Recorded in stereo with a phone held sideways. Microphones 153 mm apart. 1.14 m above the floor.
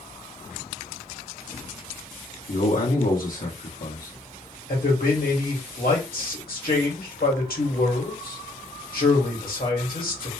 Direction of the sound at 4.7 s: 70° left (ahead or behind).